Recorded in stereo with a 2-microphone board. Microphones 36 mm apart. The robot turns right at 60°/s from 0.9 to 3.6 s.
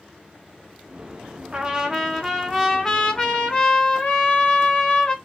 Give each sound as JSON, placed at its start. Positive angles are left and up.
{"t": 1.5, "sound": "a trumpet", "side_deg": -20, "distance_m": 1.2}